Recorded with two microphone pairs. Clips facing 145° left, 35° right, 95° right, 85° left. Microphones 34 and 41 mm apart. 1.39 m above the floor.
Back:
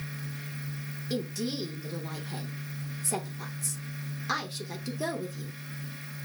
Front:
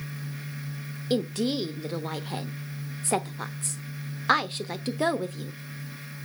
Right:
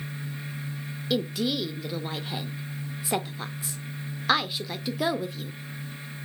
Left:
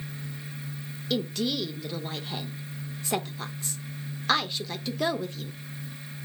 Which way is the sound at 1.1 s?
10° right.